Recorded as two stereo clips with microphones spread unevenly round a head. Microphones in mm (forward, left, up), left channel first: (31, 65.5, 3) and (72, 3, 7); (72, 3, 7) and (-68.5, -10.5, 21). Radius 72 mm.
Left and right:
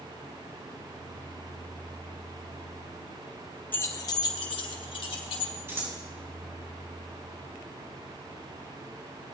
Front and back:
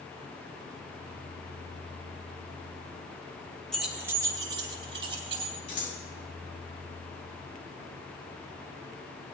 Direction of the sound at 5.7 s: Straight ahead.